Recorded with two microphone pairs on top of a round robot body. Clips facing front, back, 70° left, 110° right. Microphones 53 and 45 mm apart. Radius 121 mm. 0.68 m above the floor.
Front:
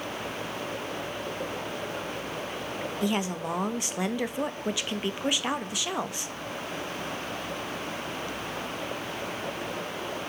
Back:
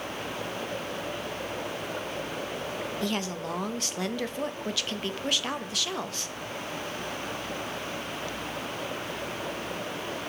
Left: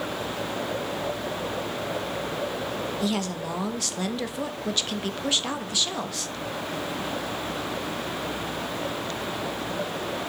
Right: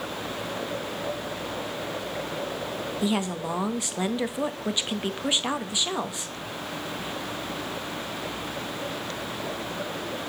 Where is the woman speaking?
50° right, 1.2 m.